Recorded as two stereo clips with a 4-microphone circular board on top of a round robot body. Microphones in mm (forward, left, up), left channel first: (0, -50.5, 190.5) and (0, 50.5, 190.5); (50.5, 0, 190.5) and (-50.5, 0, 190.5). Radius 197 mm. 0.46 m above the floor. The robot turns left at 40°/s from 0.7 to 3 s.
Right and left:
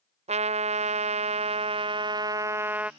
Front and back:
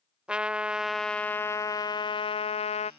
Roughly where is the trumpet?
Left.